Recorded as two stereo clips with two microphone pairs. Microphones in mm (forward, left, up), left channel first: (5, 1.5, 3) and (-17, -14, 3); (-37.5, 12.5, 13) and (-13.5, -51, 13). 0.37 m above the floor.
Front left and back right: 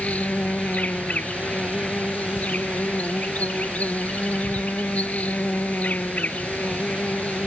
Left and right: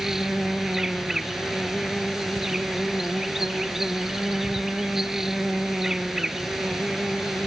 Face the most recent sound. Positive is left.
turn(degrees=15)